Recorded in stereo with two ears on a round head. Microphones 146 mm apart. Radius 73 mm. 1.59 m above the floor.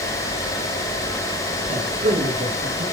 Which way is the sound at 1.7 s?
45° right (ahead or behind).